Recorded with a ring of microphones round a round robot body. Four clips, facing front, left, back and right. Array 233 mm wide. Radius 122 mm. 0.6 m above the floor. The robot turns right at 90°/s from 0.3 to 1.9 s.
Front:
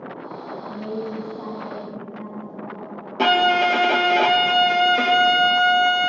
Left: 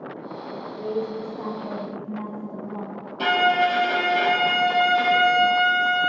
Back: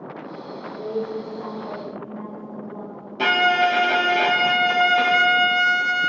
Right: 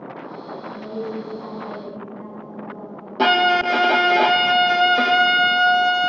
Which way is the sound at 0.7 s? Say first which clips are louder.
Left 2 dB, back 3 dB; 20° right.